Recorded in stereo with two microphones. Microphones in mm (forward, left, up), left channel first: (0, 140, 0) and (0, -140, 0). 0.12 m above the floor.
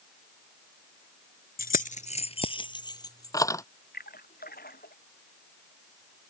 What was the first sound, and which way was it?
Keys jangling, 35° left (ahead or behind).